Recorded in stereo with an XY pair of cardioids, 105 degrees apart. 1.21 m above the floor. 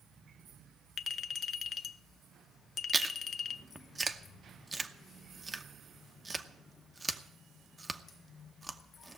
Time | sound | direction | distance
1.0 | a clink | 55° left | 0.5 m
2.9 | chewing | 15° right | 0.9 m